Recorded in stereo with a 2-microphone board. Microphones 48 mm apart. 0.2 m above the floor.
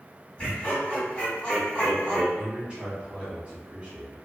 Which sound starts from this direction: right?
A man speaking, at 2.4 s.